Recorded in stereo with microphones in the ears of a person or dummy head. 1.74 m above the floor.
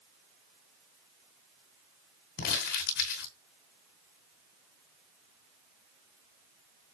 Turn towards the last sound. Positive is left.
turn(degrees=55)  # may be behind; listen again after turning